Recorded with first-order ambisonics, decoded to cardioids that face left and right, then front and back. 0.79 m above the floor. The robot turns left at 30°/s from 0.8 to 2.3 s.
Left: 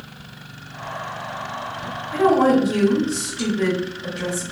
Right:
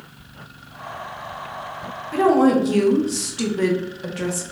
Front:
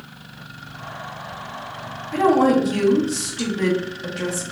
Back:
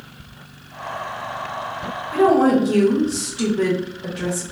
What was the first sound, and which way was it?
A woman speaking, 90° right.